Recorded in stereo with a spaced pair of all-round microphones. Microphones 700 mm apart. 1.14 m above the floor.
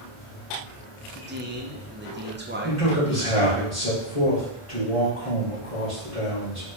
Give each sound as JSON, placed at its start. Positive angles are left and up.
{"t": 1.1, "sound": "a man speaking", "side_deg": -15, "distance_m": 0.7}
{"t": 2.6, "sound": "a man speaking", "side_deg": 50, "distance_m": 2.5}